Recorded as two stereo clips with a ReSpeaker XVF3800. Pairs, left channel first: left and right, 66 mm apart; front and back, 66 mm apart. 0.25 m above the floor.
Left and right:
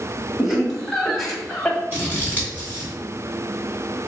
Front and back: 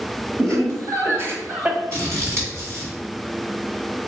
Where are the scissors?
145° right, 1.7 m.